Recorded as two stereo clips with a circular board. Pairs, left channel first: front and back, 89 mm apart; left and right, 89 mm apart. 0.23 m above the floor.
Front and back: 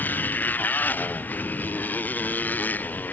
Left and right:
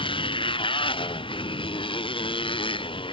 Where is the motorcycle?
70° left.